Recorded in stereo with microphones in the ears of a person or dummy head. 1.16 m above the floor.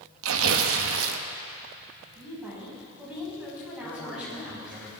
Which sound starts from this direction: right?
Tearing paper, at 0.2 s.